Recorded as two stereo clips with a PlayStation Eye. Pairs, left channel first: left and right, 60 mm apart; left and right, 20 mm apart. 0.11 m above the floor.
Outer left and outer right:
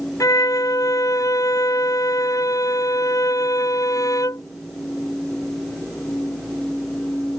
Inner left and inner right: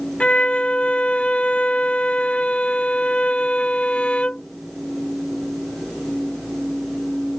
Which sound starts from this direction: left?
A violin, at 0.2 s.